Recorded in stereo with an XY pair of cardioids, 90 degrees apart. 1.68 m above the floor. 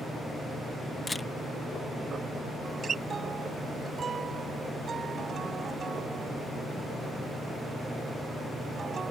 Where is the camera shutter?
25° left.